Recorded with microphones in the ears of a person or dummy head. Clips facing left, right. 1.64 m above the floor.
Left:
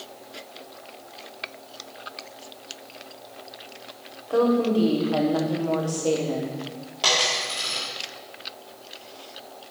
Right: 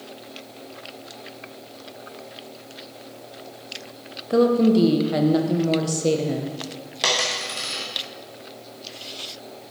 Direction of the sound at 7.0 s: 25° right (ahead or behind).